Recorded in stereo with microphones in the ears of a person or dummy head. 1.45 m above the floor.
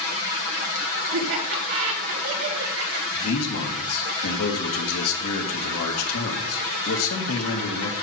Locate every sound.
1.1 s laughter: 85° right, 6 m
3.1 s a man speaking: 80° left, 2.5 m